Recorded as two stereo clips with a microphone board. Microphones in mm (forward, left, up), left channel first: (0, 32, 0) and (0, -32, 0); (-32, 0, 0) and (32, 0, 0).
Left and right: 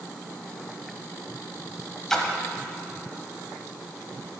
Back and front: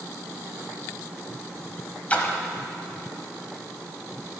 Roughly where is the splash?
Behind.